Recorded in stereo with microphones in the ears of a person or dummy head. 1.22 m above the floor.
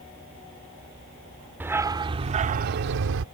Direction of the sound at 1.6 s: 5° right (ahead or behind).